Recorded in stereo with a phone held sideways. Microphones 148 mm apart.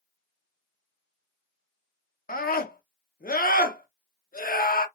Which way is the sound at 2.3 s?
85° left.